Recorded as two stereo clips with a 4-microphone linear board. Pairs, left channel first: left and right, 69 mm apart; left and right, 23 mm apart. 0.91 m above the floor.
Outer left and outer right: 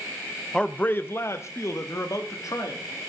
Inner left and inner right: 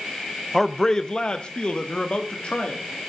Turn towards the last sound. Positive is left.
turn(degrees=50)  # may be behind; listen again after turning